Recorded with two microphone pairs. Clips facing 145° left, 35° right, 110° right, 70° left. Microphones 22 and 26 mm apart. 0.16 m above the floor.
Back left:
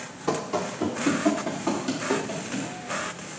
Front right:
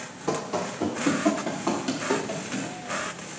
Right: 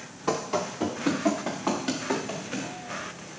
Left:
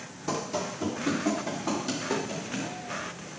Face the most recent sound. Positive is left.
turn(degrees=-110)